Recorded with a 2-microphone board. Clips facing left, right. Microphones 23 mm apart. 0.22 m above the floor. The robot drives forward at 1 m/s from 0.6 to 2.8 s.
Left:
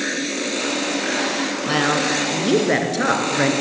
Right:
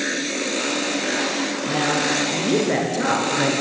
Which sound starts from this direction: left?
A woman speaking, at 1.7 s.